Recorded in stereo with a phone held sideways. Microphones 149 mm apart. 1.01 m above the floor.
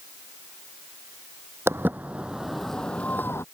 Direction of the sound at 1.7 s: 15° right (ahead or behind).